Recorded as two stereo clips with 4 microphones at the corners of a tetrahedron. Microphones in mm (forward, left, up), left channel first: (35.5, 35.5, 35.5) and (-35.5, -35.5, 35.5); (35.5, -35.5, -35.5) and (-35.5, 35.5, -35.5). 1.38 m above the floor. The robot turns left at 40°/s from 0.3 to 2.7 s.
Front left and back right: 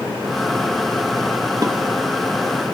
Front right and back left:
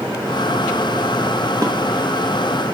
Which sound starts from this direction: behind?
Dishes clattering, at 1.6 s.